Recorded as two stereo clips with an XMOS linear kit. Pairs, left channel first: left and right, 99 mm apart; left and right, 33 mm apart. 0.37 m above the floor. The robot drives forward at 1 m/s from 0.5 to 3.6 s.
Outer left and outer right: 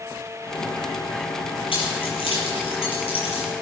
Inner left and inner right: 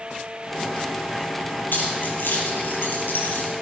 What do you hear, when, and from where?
1.7 s keys jangling: 65° left (ahead or behind), 6 m; by 3.5 s 80° left, 5.5 m